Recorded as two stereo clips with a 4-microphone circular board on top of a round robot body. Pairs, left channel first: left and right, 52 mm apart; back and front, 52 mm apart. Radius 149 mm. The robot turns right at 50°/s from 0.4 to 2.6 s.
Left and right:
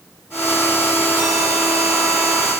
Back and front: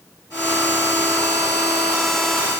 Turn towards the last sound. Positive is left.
No sound to turn to.